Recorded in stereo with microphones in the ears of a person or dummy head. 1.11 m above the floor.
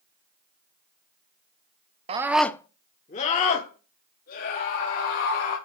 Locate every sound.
2.1 s a scream: 25° right (ahead or behind), 0.8 m; by 5.6 s 55° left (ahead or behind), 4 m